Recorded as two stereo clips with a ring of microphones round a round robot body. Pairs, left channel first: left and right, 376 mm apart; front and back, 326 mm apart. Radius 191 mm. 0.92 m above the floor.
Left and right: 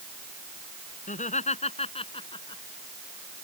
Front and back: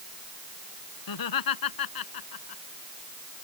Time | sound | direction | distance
1.1 | laughter | 20° left | ?